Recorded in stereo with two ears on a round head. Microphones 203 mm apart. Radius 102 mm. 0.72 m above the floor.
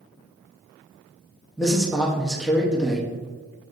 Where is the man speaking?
Centre (ahead or behind), 0.7 m.